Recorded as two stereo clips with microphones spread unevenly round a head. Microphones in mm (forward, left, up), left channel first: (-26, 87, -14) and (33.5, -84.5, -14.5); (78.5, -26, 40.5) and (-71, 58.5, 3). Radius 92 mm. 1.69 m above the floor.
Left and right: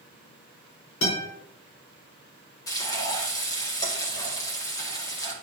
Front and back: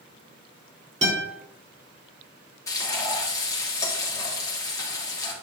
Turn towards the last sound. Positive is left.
turn(degrees=40)